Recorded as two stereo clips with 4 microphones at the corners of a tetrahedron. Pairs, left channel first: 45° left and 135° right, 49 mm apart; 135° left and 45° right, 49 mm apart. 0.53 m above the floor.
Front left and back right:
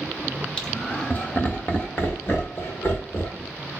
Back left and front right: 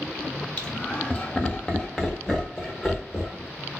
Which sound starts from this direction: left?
Laughter, at 0.6 s.